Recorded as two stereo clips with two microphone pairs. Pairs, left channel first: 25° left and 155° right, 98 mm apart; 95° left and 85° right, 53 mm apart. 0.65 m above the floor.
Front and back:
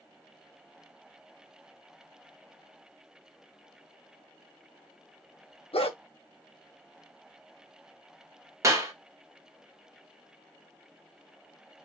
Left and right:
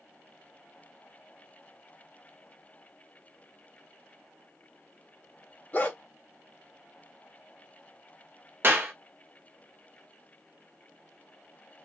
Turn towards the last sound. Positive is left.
turn(degrees=-105)